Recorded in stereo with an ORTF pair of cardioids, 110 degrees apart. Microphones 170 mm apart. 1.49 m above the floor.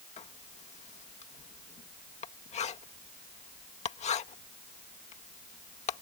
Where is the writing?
40° left.